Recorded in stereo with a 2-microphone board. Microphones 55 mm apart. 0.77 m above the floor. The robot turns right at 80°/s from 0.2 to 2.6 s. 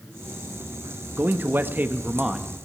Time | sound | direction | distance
1.2 | a man speaking | 115° right | 0.9 m